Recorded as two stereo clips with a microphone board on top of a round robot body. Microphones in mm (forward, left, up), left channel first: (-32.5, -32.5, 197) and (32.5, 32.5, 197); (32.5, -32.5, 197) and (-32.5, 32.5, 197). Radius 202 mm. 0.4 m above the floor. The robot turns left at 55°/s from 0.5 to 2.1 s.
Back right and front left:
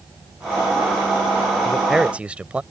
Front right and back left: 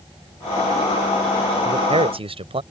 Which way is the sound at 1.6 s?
145° left.